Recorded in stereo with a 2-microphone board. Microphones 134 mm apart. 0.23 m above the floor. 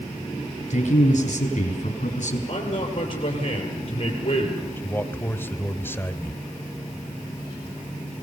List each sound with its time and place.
0.7 s a man speaking: 55° left (ahead or behind), 4.5 m
2.5 s a man speaking: 40° left (ahead or behind), 5.5 m
4.8 s a man speaking: 15° left (ahead or behind), 1.0 m